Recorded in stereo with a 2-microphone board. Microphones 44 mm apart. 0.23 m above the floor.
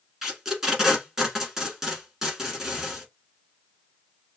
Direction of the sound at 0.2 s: 10° right (ahead or behind).